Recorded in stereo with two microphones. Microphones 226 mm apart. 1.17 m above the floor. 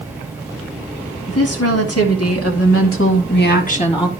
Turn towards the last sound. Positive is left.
turn(degrees=20)  # may be behind; listen again after turning